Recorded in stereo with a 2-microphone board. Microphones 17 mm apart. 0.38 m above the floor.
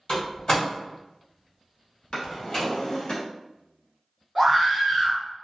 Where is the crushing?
No crushing in this recording.